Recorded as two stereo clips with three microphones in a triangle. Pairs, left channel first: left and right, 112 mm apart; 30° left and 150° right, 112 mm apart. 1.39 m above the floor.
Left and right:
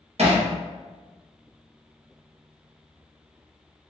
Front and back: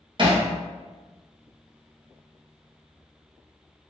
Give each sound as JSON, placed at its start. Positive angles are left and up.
{"t": 0.2, "sound": "hammering", "azimuth_deg": -110, "distance_m": 1.0}